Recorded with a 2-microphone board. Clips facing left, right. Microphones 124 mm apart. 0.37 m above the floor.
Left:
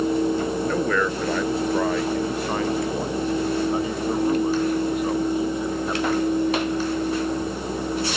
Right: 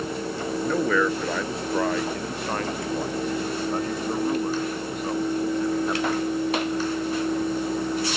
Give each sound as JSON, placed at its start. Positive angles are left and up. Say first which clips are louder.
{"t": 0.6, "sound": "a man speaking", "louder": "right 4 dB", "side_deg": 0}